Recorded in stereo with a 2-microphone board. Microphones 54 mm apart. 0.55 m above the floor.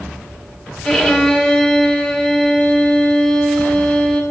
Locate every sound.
0.8 s a violin: 10° left (ahead or behind), 1.2 m